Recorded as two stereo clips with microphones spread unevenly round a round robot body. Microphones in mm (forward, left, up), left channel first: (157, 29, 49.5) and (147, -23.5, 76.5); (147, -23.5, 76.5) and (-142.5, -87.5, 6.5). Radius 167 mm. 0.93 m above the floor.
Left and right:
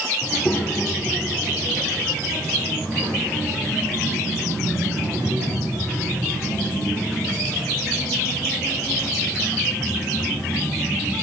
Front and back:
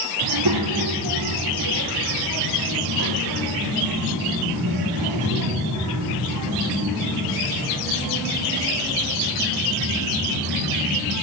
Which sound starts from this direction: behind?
A child speaking, at 0.2 s.